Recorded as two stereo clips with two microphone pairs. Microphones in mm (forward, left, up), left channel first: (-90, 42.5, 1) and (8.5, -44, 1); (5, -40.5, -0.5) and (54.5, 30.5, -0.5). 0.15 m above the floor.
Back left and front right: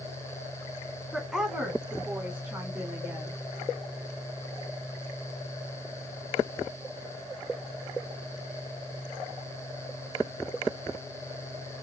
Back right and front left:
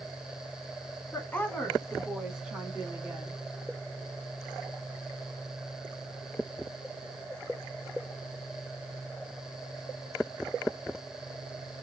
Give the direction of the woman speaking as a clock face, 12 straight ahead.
4 o'clock.